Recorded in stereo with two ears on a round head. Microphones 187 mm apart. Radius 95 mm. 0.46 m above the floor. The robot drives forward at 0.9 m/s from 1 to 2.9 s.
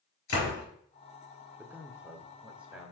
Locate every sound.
0.3 s a door slam: 75° left (ahead or behind), 4.5 m
1.6 s a man speaking: 10° right (ahead or behind), 1.0 m; by 2.9 s 5° right (ahead or behind), 1.9 m